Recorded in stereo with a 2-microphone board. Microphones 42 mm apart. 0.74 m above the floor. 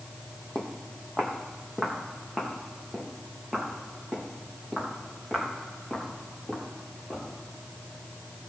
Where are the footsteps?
15° left (ahead or behind), 2 m.